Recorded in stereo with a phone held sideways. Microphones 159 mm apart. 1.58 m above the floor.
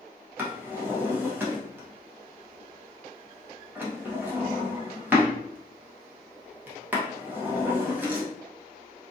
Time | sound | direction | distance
0.4 | a drawer | 10° right (ahead or behind) | 0.8 m